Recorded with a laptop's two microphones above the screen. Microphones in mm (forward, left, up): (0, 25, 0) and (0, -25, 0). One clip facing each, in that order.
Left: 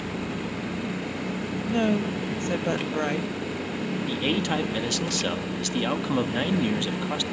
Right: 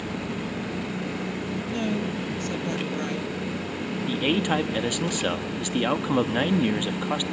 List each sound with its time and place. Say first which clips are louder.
1.7 s a woman speaking: left 5 dB; 30° left (ahead or behind), 1.1 m
4.1 s a man speaking: right 3 dB; 15° right (ahead or behind), 1.2 m